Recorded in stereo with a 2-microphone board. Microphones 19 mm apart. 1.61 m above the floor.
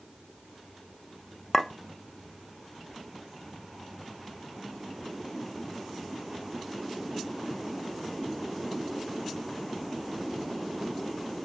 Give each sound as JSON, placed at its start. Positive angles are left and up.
{"t": 1.5, "sound": "a clink", "side_deg": 15, "distance_m": 0.6}